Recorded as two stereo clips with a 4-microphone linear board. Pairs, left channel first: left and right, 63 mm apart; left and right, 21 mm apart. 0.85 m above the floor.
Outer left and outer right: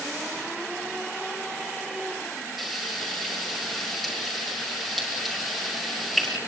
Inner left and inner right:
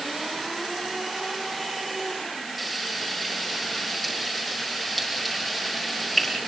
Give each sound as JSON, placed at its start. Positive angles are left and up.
{"t": 2.6, "sound": "frying", "side_deg": 0, "distance_m": 9.0}